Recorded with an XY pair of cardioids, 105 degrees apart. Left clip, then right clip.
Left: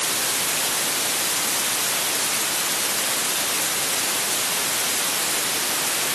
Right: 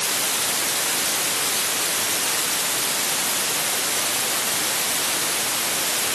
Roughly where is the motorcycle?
No motorcycle in this recording.